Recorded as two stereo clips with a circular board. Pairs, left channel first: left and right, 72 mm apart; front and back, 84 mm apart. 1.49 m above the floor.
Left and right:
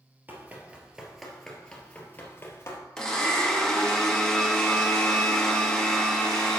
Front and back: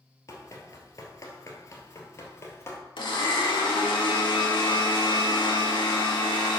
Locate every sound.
0.3 s running footsteps: 35° right, 2 m; by 2.8 s 50° left, 2.5 m
3.0 s a blender: 10° left, 1.9 m